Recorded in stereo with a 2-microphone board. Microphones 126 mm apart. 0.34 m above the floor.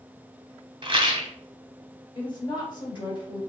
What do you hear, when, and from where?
0.8 s a rattle: 40° right (ahead or behind), 0.9 m
2.1 s a woman speaking: 35° left (ahead or behind), 1.8 m